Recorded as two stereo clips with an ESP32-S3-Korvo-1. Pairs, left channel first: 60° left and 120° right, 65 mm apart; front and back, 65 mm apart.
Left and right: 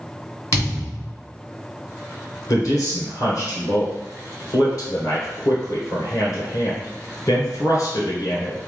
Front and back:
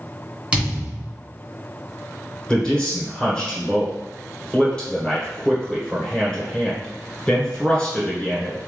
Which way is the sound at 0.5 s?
105° left.